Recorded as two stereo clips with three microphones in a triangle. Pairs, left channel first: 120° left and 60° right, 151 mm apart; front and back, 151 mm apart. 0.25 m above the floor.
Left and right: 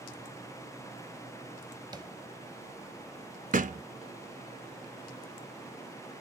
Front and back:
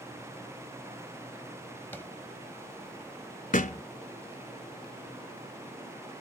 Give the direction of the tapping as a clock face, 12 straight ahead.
2 o'clock.